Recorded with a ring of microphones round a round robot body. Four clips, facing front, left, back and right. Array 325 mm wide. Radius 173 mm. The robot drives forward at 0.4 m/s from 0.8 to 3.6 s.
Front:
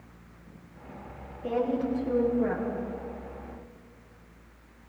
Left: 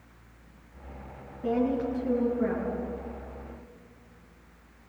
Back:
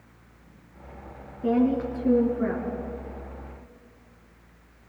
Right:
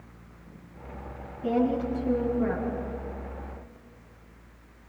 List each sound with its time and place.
1.4 s a woman speaking: 165° left, 6 m